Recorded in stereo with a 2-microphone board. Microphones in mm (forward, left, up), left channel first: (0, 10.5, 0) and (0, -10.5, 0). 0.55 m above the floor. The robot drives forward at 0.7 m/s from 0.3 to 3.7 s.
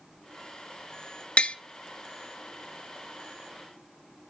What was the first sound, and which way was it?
Tapping, 65° left (ahead or behind).